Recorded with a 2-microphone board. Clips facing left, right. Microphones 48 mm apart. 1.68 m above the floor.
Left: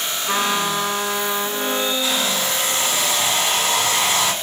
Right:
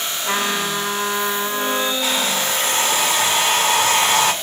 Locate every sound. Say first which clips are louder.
0.2 s a trumpet: left 1 dB; 75° right (ahead or behind), 2 m
2.0 s a hair dryer: right 1 dB; 70° right (ahead or behind), 1.5 m